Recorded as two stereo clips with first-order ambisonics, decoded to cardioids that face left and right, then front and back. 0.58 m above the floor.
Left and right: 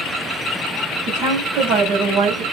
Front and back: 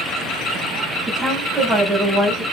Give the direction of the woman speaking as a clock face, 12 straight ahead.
4 o'clock.